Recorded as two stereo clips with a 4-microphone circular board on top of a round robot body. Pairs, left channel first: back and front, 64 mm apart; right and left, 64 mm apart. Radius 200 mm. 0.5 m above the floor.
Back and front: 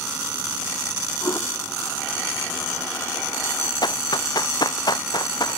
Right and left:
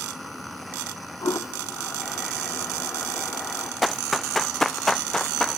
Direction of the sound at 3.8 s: Straight behind.